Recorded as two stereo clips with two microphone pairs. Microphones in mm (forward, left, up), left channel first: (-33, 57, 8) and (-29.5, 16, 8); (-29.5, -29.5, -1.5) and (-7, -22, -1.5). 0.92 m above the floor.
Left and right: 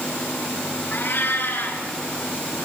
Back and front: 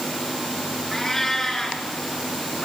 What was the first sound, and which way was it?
A cat meowing, 130° left.